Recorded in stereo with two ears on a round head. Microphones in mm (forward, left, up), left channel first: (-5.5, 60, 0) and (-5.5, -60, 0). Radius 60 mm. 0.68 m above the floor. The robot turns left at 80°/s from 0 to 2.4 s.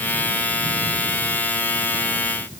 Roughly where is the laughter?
I don't hear laughter.